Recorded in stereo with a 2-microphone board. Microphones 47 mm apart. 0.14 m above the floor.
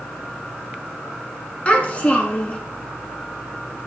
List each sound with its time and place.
1.6 s a child speaking: 30° left (ahead or behind), 1.1 m